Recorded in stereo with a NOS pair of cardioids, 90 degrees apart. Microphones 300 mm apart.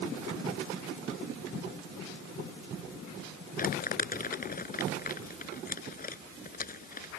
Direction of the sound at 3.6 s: 30° left.